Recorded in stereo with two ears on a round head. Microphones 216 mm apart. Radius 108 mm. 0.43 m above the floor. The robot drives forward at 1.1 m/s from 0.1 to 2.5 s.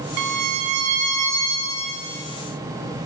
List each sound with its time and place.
0.2 s a violin: 75° right (ahead or behind), 0.6 m; by 2.2 s 15° right (ahead or behind), 2.5 m